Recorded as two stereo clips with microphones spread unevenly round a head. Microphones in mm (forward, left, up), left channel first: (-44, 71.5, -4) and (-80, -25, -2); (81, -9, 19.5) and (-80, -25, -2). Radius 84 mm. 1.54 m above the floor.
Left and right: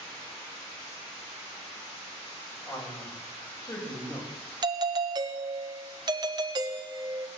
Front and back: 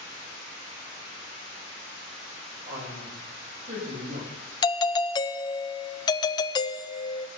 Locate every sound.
2.7 s a man speaking: 130° left, 6.5 m
4.6 s a doorbell: 60° right, 0.6 m